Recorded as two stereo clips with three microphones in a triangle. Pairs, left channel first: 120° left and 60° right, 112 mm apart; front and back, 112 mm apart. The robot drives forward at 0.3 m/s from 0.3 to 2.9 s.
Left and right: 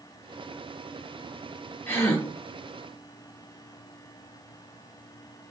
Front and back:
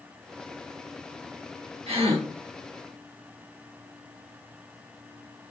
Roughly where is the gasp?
Behind.